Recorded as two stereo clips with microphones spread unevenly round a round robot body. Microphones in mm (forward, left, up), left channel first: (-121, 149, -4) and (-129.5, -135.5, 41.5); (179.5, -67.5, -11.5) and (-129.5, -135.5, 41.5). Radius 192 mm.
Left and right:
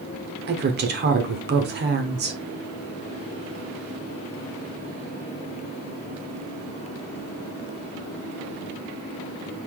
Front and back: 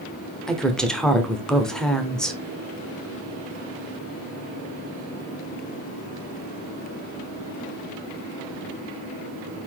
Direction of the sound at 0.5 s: 55° right.